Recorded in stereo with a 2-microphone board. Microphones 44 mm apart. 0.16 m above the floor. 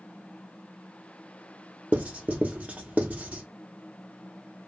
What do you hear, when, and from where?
1.9 s writing: 35° right (ahead or behind), 0.8 m